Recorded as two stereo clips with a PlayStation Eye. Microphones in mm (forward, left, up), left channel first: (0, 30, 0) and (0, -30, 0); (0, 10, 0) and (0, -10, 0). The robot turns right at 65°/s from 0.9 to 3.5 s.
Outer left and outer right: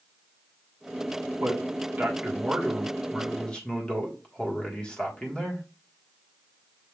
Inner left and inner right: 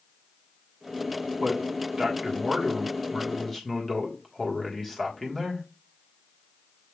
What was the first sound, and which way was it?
A man speaking, 100° right.